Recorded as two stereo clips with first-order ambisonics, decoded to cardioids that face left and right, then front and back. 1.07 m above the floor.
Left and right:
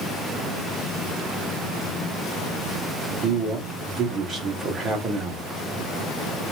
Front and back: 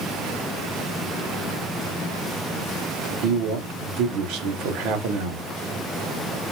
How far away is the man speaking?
About 1.4 m.